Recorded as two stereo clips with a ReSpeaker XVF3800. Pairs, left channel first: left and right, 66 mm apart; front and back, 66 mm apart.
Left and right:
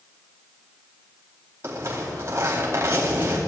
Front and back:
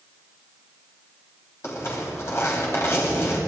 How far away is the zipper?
About 4.5 m.